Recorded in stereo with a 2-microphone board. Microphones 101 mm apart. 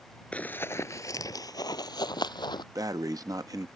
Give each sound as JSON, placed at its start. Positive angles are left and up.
{"t": 0.3, "sound": "running footsteps", "side_deg": 10}
{"t": 2.8, "sound": "breathing", "side_deg": -35}